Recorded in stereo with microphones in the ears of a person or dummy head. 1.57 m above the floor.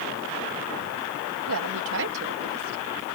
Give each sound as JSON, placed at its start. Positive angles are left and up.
{"t": 1.5, "sound": "a woman speaking", "side_deg": -75}